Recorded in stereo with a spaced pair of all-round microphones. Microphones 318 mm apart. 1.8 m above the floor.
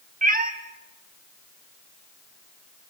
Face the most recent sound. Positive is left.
turn(degrees=-25)  # may be behind; listen again after turning